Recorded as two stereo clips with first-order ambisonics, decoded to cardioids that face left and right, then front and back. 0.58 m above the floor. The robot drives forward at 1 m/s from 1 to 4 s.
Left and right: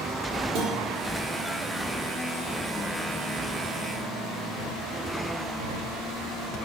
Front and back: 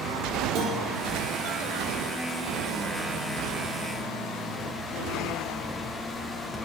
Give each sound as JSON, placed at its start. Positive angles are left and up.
{"t": 0.6, "sound": "a guitar", "azimuth_deg": -130, "distance_m": 4.0}